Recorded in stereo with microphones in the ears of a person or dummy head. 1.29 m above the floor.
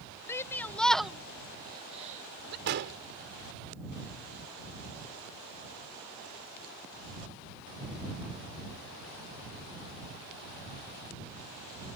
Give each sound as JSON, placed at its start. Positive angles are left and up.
{"t": 0.3, "sound": "a shout", "side_deg": 15}
{"t": 2.7, "sound": "an explosion", "side_deg": -50}